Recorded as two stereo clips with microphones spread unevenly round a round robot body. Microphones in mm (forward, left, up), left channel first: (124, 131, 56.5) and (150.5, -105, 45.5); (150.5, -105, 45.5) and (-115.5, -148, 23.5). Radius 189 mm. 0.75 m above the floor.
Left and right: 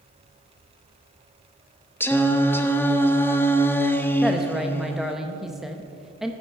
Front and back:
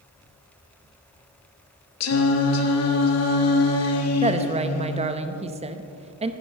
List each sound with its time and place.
2.0 s singing: 15° left, 1.2 m
4.2 s a woman speaking: 165° right, 0.7 m